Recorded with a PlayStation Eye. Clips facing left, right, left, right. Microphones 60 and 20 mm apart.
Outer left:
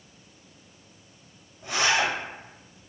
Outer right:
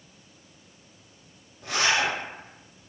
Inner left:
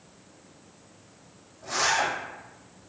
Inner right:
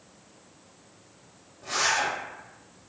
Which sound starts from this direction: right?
A zipper, at 1.6 s.